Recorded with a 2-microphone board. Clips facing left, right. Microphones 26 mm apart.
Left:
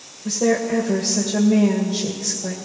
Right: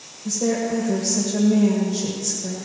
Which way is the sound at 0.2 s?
35° left (ahead or behind).